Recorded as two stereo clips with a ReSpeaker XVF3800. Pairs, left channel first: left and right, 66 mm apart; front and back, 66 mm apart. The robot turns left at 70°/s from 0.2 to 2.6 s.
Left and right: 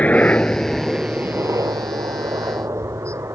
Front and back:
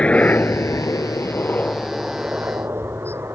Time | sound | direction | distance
0.0 | a helicopter | 50° left | ?